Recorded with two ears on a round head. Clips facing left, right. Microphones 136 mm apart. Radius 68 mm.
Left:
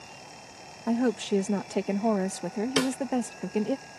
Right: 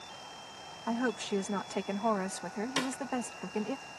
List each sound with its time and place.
0.9 s a woman speaking: 35° left (ahead or behind)
2.8 s a snare drum: 70° left (ahead or behind)